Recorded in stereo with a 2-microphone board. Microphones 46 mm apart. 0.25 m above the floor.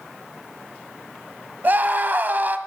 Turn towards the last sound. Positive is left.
turn(degrees=-40)  # may be behind; listen again after turning